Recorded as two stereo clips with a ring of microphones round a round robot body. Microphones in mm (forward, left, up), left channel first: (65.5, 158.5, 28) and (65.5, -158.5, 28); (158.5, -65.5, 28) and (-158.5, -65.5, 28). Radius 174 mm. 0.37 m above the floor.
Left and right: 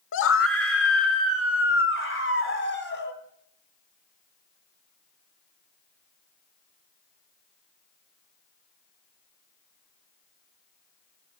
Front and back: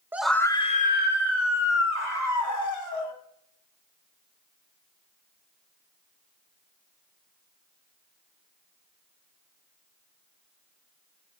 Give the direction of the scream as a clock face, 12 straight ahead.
9 o'clock.